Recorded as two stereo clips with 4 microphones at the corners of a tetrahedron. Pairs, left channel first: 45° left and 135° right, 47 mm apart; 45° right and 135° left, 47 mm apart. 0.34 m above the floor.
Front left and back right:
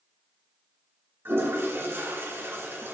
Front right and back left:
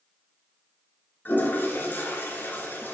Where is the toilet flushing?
95° right, 1.9 m.